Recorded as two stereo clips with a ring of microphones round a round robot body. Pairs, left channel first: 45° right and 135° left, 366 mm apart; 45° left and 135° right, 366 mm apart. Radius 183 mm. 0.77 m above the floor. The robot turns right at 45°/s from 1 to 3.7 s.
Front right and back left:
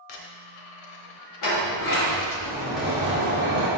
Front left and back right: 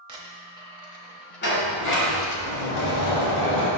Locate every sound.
0.1 s a dropped coin: 60° right, 1.2 m; by 2.4 s 5° left, 1.2 m
1.4 s a sliding door: 15° right, 2 m; by 3.7 s 85° left, 2 m